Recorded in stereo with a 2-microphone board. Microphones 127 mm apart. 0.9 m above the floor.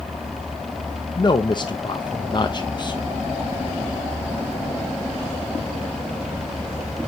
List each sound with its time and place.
1.2 s a man speaking: 35° left (ahead or behind), 0.6 m